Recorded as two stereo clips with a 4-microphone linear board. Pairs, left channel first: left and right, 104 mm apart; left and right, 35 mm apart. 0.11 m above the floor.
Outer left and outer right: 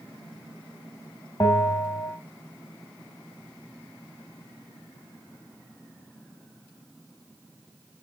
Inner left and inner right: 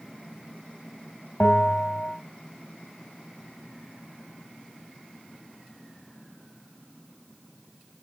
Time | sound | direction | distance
1.4 | a bell | 25° left (ahead or behind) | 1.7 m